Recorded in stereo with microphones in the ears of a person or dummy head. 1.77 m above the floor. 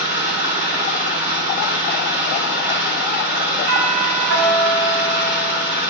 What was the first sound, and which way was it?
An engine running, 30° right (ahead or behind).